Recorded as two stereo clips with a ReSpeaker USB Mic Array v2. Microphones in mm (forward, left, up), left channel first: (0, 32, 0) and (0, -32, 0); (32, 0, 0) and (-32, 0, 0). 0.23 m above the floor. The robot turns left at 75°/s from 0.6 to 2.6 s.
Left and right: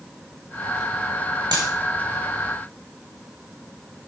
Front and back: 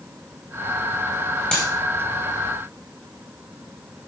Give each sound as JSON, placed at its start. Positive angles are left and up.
{"t": 1.5, "sound": "a dropped coin", "azimuth_deg": -75, "distance_m": 3.5}